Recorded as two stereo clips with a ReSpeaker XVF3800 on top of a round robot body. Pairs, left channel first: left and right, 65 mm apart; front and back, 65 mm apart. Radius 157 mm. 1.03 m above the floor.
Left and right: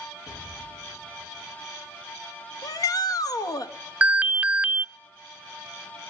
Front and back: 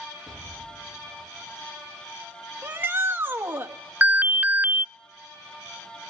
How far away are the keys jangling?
No keys jangling in this recording.